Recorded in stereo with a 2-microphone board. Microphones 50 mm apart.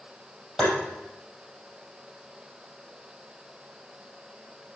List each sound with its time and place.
0.6 s tapping: centre (ahead or behind), 4 m